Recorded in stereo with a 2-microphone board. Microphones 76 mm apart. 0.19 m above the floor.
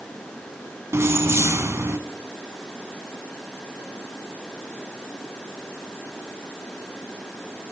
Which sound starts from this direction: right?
Keys jangling, at 0.9 s.